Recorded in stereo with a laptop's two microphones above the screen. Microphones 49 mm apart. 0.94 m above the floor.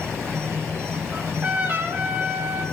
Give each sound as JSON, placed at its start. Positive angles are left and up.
{"t": 0.0, "sound": "an insect", "side_deg": -60, "distance_m": 3.5}
{"t": 1.1, "sound": "a trumpet", "side_deg": -40, "distance_m": 4.5}